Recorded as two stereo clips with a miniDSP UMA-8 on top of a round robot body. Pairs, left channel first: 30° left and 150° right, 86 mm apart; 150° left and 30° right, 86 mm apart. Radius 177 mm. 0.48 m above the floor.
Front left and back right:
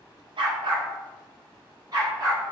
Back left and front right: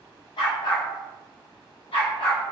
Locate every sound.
0.4 s a dog barking: 175° right, 0.7 m; by 2.4 s 160° left, 1.6 m